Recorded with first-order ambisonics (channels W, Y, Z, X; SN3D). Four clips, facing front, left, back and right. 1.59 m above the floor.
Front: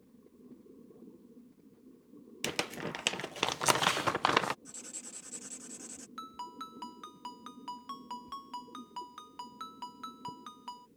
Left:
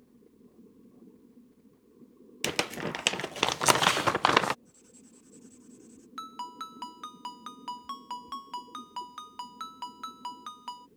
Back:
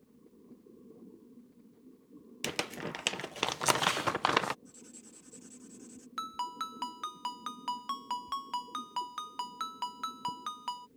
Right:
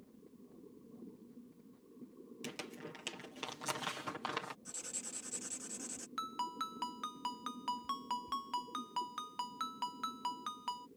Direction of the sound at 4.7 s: 55° right.